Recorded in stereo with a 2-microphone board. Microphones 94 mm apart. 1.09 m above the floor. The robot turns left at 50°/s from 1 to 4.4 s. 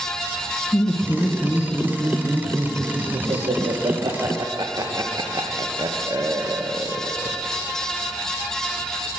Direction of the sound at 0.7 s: 35° left (ahead or behind).